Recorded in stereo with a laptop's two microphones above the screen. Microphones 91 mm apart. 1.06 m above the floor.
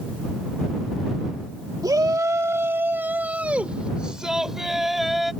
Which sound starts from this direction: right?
A shout, at 1.8 s.